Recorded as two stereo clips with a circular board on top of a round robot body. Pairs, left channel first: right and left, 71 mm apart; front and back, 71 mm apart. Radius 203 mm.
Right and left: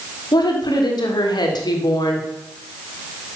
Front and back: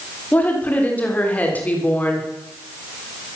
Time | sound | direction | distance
0.3 | a woman speaking | 70° right | 3.5 m